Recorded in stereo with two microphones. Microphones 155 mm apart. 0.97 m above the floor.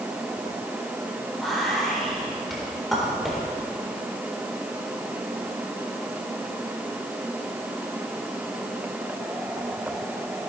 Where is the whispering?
Centre (ahead or behind), 4 m.